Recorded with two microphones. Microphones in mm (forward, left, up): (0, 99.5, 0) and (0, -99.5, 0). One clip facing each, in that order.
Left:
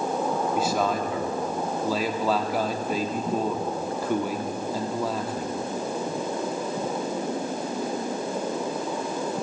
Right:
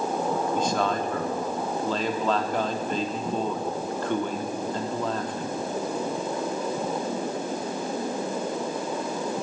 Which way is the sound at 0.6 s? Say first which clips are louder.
Left 1 dB; 5° left (ahead or behind).